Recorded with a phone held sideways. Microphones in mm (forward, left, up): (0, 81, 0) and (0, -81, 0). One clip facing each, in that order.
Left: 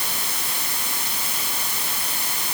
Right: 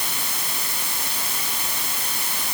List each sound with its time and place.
Only background noise.